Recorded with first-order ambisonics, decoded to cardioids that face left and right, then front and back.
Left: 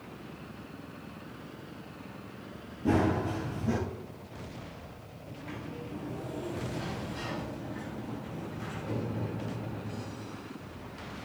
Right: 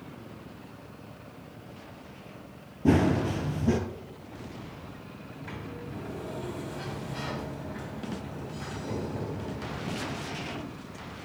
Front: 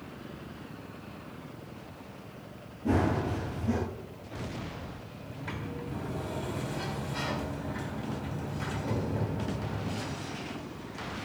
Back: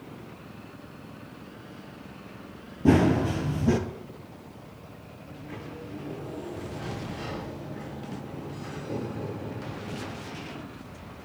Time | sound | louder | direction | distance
2.9 | running footsteps | right 3 dB, back 6 dB | 150° right | 1.2 m
5.2 | a sliding door | even, front 2 dB | 20° right | 3 m